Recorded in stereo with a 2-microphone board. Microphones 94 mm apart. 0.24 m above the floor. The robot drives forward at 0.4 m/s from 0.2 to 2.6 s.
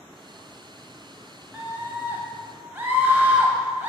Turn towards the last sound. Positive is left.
turn(degrees=-20)  # may be behind; listen again after turning